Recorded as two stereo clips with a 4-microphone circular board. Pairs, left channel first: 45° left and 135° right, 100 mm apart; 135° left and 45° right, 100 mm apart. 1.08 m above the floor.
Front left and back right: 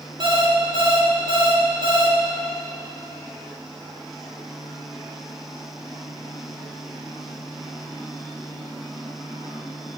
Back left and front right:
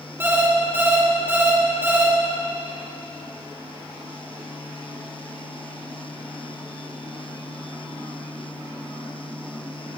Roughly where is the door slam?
I don't hear a door slam.